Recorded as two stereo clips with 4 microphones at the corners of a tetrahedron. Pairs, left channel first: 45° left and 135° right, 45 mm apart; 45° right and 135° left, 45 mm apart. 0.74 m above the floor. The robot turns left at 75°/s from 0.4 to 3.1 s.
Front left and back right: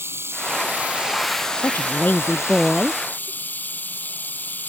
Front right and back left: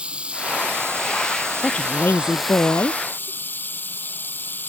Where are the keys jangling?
No keys jangling in this recording.